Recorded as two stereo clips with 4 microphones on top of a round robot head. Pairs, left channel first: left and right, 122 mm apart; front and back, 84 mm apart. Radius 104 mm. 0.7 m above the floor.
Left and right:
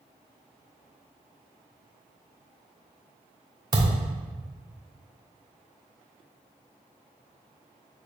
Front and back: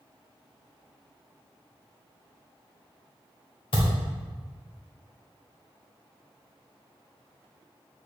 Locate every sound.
3.7 s a thud: 30° right, 1.0 m